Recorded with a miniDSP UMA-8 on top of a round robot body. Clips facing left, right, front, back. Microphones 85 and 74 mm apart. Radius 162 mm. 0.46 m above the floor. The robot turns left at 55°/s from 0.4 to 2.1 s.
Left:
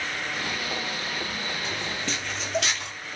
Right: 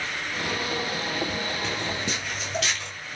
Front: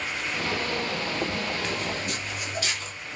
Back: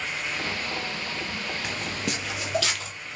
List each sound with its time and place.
1.6 s footsteps: 100° right, 0.5 m; by 2.9 s 175° left, 1.3 m